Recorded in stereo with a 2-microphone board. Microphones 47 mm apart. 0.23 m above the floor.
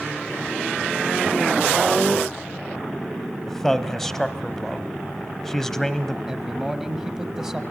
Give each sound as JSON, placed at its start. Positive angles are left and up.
{"t": 3.5, "sound": "a man speaking", "side_deg": 10, "distance_m": 1.0}
{"t": 6.3, "sound": "a man speaking", "side_deg": -15, "distance_m": 1.4}